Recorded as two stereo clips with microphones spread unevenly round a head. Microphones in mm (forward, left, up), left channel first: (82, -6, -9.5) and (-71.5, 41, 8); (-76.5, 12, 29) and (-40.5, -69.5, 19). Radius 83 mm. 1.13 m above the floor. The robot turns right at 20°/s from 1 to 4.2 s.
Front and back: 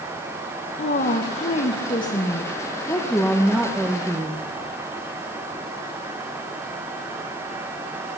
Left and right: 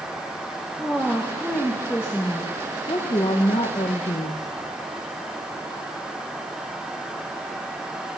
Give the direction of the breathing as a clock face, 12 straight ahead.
I don't hear breathing.